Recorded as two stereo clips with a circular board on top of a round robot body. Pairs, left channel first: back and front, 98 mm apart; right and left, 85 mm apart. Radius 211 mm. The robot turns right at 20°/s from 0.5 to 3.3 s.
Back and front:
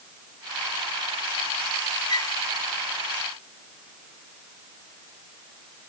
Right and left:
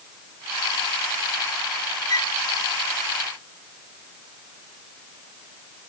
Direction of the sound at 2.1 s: 135° right.